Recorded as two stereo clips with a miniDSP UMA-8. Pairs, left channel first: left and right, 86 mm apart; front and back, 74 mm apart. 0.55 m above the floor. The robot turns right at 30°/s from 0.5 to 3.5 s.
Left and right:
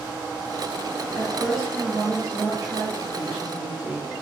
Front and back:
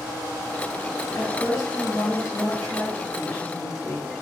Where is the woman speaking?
10° right, 1.4 m; by 4.1 s 60° left, 1.4 m.